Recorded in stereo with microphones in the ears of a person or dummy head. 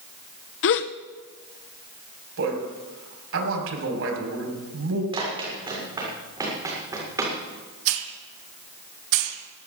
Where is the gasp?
60° left (ahead or behind), 0.7 m.